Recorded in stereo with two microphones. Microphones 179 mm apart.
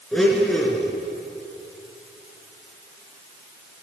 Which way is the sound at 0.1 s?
5° left (ahead or behind).